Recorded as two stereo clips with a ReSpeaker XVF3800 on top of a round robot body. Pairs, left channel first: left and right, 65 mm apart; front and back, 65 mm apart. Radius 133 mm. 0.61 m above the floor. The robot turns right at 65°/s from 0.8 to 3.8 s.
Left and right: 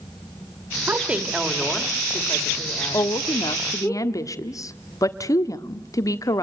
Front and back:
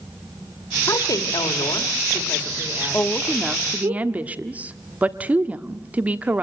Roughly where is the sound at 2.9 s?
Ahead left.